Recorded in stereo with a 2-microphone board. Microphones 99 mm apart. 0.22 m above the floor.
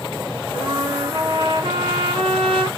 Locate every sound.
0.5 s a trumpet: 55° right (ahead or behind), 4 m